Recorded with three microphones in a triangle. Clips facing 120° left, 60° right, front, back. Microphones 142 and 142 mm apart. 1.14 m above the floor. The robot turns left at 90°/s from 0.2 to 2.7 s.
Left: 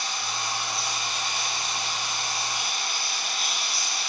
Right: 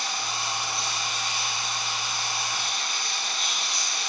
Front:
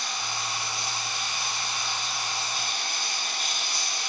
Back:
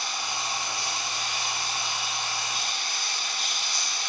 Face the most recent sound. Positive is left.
turn(degrees=35)